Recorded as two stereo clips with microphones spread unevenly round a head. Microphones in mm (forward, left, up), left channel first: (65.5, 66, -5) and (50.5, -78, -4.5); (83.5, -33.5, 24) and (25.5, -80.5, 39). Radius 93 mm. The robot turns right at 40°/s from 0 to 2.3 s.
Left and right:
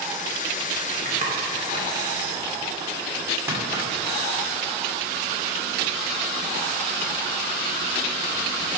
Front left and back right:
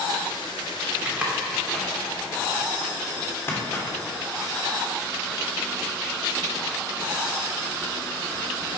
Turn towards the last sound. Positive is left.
turn(degrees=-25)